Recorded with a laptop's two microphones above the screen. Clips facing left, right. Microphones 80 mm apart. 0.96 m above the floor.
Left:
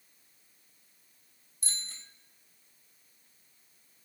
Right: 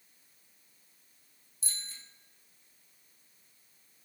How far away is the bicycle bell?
About 3.5 m.